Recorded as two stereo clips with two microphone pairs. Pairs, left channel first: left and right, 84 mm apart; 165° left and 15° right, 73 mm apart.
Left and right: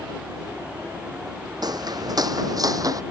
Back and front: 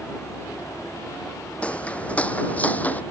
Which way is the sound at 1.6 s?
125° right.